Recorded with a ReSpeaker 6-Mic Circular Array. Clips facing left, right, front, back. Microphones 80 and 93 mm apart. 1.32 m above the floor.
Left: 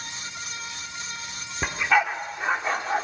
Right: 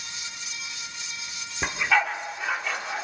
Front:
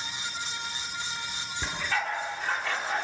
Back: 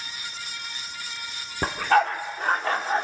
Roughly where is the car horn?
I don't hear a car horn.